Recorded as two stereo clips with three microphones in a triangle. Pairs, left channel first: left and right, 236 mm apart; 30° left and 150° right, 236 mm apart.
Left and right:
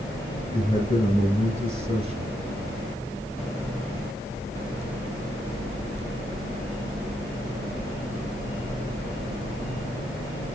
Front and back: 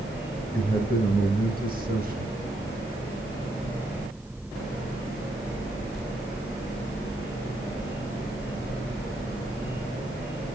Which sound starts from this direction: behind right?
A man speaking, at 0.5 s.